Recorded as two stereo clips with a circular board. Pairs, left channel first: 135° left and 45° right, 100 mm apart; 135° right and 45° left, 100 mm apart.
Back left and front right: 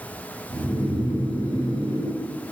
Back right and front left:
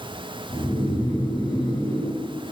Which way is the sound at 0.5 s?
90° right.